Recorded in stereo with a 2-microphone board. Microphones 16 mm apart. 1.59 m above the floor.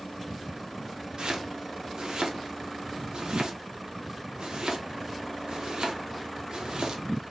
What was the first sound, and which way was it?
Chopping, 60° right (ahead or behind).